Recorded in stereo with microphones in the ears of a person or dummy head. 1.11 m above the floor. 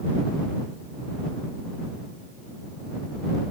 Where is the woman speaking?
I don't hear a woman speaking.